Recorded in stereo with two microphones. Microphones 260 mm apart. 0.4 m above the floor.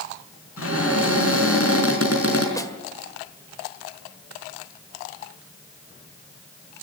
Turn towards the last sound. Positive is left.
turn(degrees=15)  # may be behind; listen again after turning